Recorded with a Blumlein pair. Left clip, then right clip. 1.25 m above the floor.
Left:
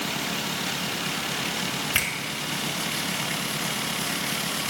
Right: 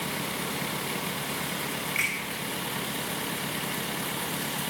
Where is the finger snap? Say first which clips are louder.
Left 2 dB; 50° left, 6.5 m.